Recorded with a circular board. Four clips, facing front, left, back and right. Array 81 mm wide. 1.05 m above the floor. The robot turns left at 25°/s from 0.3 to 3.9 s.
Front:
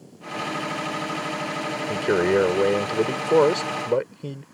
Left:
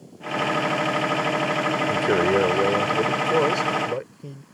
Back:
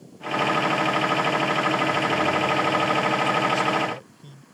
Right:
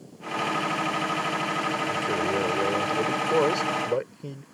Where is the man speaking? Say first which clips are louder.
Left 9 dB, front 2 dB; 40° left; by 4.4 s 10° right.